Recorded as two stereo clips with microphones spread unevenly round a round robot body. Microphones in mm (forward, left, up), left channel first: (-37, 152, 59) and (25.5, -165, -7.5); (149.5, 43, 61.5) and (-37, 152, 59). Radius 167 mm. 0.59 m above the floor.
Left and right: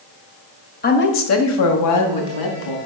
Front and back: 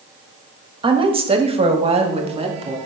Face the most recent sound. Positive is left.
turn(degrees=90)